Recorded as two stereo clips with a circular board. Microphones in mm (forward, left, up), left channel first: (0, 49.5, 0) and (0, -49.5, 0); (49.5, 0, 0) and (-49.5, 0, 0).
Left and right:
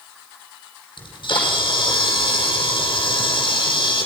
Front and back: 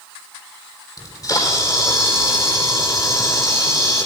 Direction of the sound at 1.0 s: 50° left.